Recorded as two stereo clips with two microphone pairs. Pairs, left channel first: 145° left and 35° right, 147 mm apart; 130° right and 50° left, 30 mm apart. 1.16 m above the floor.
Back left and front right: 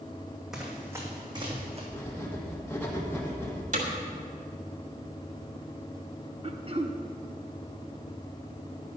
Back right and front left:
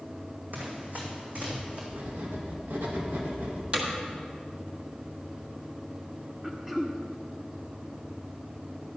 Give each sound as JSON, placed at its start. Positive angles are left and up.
{"t": 0.5, "sound": "running footsteps", "azimuth_deg": 50, "distance_m": 2.5}
{"t": 1.9, "sound": "writing", "azimuth_deg": 70, "distance_m": 2.0}
{"t": 3.7, "sound": "hammering", "azimuth_deg": 0, "distance_m": 1.7}
{"t": 6.4, "sound": "throat clearing", "azimuth_deg": -20, "distance_m": 0.8}